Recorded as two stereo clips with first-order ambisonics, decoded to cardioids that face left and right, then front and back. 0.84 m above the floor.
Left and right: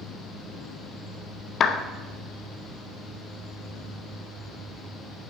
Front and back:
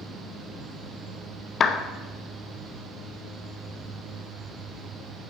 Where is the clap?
50° left, 0.7 m.